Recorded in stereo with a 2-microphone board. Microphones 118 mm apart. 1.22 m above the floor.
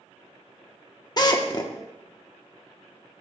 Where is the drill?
35° left (ahead or behind), 0.9 m.